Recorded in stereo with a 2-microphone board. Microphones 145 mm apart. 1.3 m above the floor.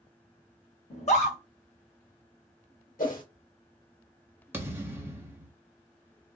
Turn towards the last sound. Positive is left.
turn(degrees=-15)  # may be behind; listen again after turning